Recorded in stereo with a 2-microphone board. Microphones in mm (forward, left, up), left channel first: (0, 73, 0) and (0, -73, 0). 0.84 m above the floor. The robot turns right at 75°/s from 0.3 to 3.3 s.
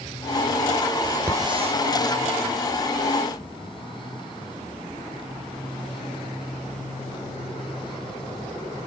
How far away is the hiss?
About 3.5 m.